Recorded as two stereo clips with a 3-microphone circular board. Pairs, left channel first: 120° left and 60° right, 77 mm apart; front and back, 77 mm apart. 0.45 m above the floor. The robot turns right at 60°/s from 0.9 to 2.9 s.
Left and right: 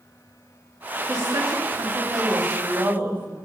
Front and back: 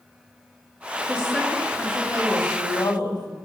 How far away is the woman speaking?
About 2.5 m.